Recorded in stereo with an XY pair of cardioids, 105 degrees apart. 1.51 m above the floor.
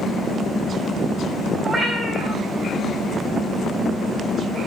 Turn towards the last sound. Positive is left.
turn(degrees=-20)